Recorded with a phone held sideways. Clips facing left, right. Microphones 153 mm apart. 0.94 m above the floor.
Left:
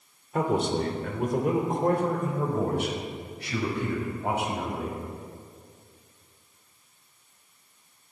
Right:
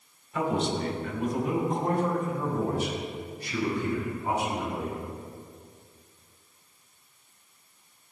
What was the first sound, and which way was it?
A man speaking, 50° left (ahead or behind).